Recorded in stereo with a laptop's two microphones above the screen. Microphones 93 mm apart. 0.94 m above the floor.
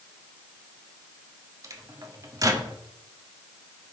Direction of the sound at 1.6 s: 40° right (ahead or behind).